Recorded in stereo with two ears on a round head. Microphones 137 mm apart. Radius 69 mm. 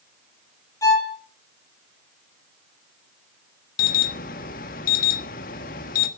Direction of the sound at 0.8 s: 20° left (ahead or behind).